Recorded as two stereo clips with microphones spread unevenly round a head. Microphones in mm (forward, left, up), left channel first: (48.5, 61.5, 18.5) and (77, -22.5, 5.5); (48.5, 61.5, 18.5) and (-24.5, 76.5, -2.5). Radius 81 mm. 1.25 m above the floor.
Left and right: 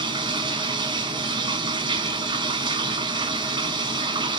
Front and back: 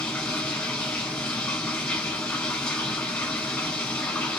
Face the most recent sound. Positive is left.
turn(degrees=-70)